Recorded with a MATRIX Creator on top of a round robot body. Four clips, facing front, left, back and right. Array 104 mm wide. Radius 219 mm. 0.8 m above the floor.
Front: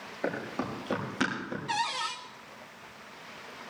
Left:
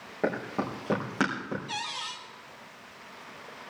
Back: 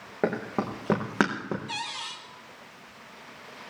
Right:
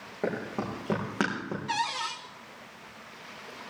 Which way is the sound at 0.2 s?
175° left.